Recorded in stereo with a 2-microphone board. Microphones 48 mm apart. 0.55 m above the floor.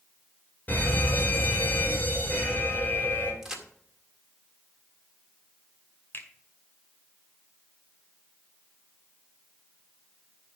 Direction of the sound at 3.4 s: 10° right (ahead or behind).